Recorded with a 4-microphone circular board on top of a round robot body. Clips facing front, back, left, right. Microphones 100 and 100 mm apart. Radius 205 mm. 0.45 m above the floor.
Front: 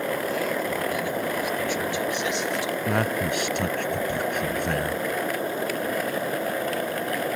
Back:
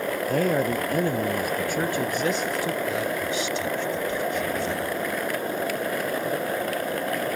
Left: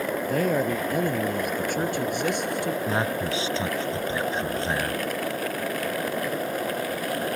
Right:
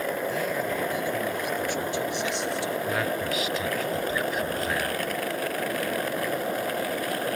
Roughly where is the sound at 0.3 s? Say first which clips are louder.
Back 4 dB, left 4 dB; behind left.